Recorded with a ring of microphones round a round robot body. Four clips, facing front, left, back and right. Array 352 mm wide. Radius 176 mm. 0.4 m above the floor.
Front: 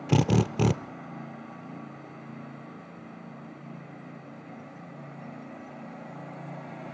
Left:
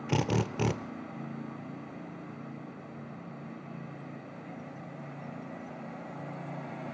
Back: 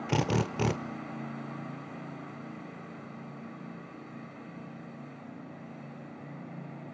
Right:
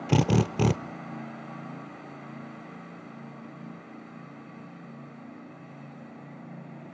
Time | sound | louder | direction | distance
0.1 | a drill | right 6 dB, front 5 dB | 45° right | 0.8 m